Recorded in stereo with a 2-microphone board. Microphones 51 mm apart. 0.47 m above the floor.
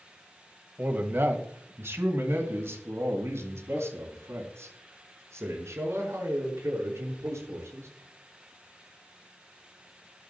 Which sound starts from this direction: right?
A man speaking, at 0.8 s.